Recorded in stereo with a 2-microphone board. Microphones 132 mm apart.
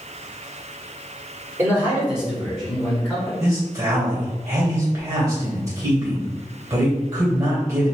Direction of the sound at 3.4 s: 25° right (ahead or behind).